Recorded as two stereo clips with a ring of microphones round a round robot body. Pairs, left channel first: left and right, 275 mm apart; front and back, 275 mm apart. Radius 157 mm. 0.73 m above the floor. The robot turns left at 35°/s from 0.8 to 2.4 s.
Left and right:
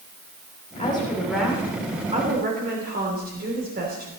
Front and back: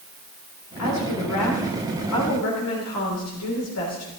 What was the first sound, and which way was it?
A woman speaking, 20° left.